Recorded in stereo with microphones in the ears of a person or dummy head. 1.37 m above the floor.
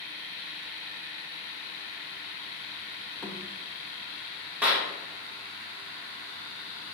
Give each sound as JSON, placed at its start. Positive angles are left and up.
{"t": 3.2, "sound": "a thud", "side_deg": 10, "distance_m": 1.3}
{"t": 4.6, "sound": "a clap", "side_deg": -15, "distance_m": 1.6}